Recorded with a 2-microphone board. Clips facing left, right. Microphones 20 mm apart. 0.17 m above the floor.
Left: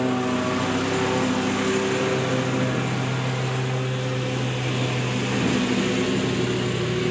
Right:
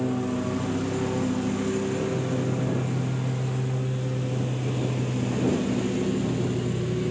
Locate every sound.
0.0 s a lawn mower: 45° left (ahead or behind)